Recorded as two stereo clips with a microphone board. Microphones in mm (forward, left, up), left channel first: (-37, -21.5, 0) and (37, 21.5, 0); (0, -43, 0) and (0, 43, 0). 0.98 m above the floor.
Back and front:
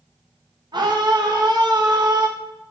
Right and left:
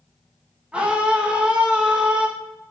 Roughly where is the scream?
Ahead.